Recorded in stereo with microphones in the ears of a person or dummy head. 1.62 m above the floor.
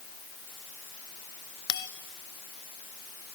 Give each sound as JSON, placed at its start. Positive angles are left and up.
{"t": 1.7, "sound": "a bell", "side_deg": 25, "distance_m": 0.7}